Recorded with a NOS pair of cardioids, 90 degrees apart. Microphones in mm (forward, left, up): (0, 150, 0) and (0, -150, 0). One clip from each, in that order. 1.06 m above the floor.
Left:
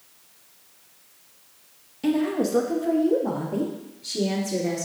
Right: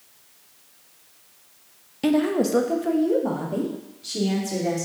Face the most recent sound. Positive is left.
turn(degrees=-10)